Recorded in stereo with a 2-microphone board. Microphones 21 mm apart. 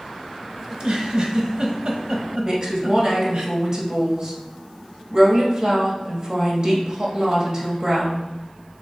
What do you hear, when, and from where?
0.7 s a giggle: 45° right (ahead or behind), 0.8 m
2.4 s a woman speaking: 40° right (ahead or behind), 1.2 m